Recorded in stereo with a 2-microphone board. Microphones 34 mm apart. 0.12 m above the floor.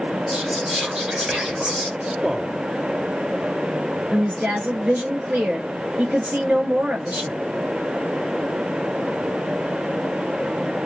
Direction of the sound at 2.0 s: 35° right (ahead or behind).